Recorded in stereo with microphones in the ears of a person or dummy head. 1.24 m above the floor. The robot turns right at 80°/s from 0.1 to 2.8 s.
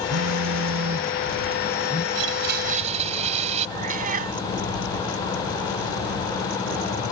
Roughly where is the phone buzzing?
Behind right.